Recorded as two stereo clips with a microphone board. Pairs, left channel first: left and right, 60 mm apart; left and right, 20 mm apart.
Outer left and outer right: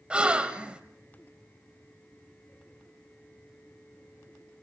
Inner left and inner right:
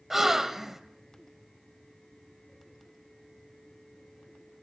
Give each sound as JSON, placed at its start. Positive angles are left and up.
{"t": 0.1, "sound": "a gasp", "side_deg": -15, "distance_m": 1.6}